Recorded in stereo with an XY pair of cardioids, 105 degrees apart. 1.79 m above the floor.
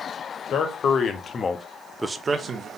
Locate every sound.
0.5 s a man speaking: 70° left, 1.2 m; by 2.7 s 50° right, 0.8 m